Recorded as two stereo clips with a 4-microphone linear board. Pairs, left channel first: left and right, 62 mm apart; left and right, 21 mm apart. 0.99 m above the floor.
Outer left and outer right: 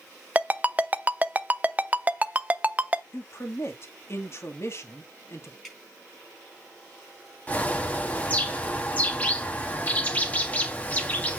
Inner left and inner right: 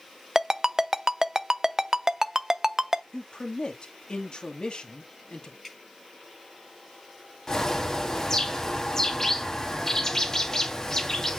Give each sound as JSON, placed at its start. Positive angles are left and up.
{"t": 0.3, "sound": "a ringtone", "side_deg": -25, "distance_m": 0.5}
{"t": 3.1, "sound": "a man speaking", "side_deg": 45, "distance_m": 1.8}
{"t": 5.6, "sound": "dripping", "side_deg": 0, "distance_m": 5.0}
{"t": 7.5, "sound": "a bird", "side_deg": 25, "distance_m": 1.6}